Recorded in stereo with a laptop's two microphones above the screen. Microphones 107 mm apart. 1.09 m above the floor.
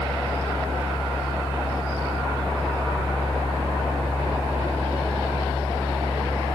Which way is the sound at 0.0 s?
60° left (ahead or behind).